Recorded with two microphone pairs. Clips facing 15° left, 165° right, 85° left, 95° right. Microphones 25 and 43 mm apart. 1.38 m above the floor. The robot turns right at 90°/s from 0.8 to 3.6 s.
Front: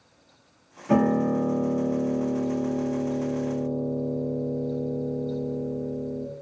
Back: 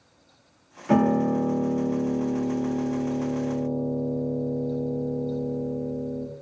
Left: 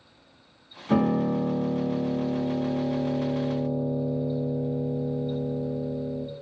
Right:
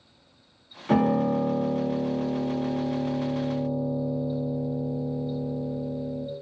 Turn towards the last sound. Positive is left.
turn(degrees=110)